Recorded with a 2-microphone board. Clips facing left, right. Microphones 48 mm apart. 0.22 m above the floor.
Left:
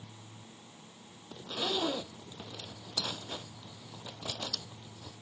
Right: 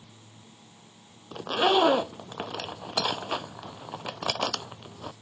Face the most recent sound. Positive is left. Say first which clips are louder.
# right 12 dB
turn(degrees=-65)  # may be behind; listen again after turning